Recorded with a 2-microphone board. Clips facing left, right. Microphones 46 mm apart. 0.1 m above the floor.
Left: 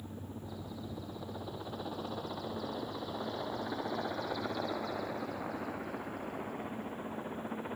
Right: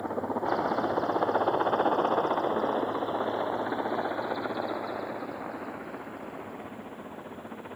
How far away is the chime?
I don't hear a chime.